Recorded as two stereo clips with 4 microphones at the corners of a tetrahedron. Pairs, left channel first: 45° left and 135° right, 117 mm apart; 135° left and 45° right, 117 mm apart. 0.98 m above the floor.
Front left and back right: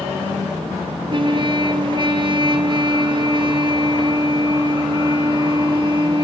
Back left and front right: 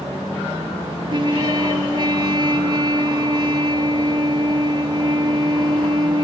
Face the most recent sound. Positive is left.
turn(degrees=-90)